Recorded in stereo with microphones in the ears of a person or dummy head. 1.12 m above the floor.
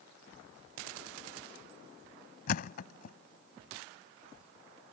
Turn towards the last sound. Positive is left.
turn(degrees=55)  # may be behind; listen again after turning